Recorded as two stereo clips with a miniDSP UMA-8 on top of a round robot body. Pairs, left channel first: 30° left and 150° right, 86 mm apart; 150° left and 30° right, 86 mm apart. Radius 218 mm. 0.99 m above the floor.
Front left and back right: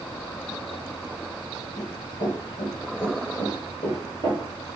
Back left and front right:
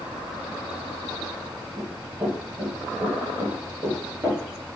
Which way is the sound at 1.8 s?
45° left.